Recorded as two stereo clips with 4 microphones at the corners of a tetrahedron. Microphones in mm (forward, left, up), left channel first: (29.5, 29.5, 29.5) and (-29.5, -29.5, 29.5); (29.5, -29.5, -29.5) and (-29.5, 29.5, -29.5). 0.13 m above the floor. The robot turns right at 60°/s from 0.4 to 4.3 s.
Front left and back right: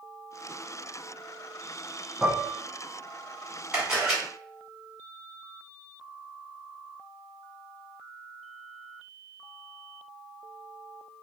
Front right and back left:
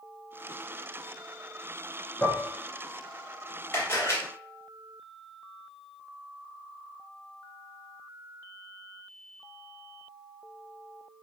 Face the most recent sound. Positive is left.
turn(degrees=-40)